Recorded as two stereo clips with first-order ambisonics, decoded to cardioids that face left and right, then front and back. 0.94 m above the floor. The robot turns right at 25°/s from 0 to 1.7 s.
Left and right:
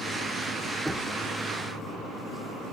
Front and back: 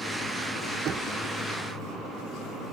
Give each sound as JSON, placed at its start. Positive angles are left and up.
{"t": 0.8, "sound": "knocking", "azimuth_deg": 180, "distance_m": 0.6}